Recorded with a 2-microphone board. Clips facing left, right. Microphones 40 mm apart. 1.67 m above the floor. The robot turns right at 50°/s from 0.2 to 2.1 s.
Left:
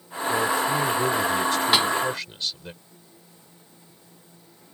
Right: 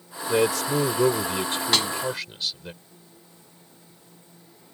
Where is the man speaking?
90° right; by 2.7 s straight ahead.